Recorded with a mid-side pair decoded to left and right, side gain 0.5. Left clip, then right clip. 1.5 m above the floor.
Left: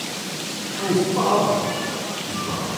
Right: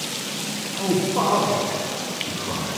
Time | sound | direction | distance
0.8 | a man speaking | 15° right | 3 m